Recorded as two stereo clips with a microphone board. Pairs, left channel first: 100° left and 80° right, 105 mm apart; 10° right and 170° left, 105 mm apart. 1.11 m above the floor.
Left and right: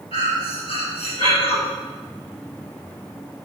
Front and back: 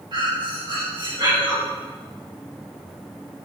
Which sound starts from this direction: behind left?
Breathing, at 0.1 s.